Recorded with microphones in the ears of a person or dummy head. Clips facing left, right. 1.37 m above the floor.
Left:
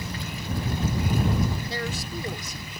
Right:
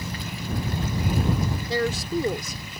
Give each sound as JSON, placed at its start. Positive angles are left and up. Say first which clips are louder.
{"t": 1.7, "sound": "a woman speaking", "louder": "right 7 dB", "side_deg": -55}